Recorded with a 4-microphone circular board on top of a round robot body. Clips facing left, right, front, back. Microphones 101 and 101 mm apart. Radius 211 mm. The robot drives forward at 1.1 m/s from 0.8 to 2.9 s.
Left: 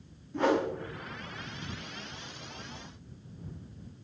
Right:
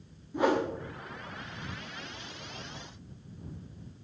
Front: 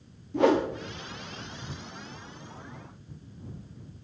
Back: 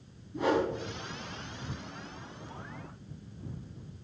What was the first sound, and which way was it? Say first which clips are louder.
A whoosh: even, front 5 dB; 10° right.